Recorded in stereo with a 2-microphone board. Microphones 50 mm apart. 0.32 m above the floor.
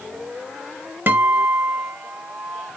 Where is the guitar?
50° right (ahead or behind), 0.7 m.